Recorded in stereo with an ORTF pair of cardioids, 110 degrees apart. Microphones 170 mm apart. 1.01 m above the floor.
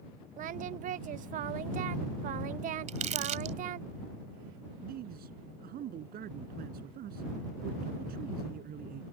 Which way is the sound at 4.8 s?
60° right.